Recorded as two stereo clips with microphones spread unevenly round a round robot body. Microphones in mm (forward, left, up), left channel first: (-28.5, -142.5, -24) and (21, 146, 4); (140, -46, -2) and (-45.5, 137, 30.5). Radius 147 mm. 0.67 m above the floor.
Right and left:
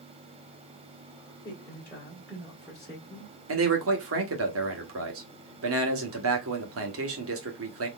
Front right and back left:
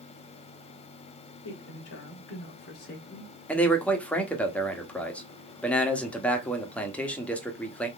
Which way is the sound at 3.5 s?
35° left.